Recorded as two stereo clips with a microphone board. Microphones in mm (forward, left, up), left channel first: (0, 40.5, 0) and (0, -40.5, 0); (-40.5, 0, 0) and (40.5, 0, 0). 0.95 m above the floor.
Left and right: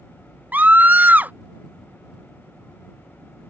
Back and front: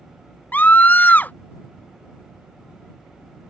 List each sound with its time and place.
0.5 s a scream: 135° right